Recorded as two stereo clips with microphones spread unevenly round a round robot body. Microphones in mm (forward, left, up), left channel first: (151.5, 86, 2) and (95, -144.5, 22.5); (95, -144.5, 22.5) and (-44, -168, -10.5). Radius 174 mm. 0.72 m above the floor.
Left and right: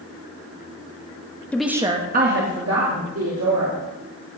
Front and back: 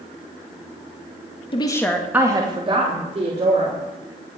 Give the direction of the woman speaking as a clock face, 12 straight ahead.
12 o'clock.